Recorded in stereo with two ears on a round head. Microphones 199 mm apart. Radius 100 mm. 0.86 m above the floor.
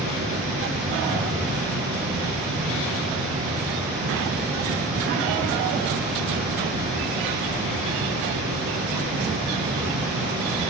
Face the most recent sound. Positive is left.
turn(degrees=-45)  # may be behind; listen again after turning